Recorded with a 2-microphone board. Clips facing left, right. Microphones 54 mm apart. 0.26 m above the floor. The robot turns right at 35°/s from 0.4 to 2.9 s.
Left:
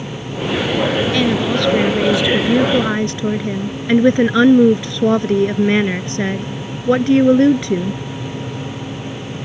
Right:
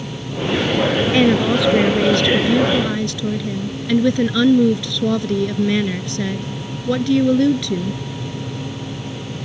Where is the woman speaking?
25° right; by 8.0 s 40° left.